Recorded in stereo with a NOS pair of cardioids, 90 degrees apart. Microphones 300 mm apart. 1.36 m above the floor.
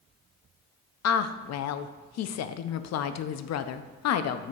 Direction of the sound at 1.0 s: 60° left.